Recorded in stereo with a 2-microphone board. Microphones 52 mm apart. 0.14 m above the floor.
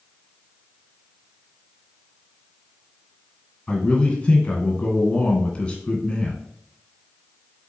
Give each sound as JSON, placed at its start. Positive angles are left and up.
{"t": 3.7, "sound": "a man speaking", "side_deg": 20, "distance_m": 1.3}